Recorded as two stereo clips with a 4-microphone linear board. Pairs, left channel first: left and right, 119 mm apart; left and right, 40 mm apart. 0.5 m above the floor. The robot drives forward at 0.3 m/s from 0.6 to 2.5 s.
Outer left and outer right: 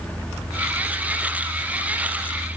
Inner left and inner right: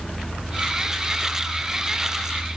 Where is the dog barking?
I don't hear a dog barking.